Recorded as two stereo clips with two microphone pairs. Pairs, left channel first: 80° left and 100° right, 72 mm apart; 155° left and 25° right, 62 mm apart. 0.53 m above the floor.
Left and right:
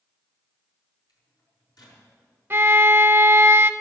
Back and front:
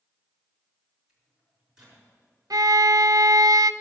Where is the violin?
35° right, 0.7 m.